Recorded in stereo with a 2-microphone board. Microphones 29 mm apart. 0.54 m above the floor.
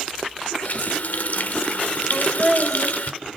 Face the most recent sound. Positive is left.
turn(degrees=0)  # may be behind; listen again after turning